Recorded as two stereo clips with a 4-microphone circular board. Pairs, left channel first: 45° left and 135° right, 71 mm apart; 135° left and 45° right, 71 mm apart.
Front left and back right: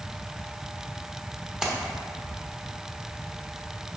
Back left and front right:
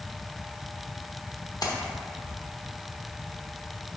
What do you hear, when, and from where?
1.6 s a splash: 140° left, 1.0 m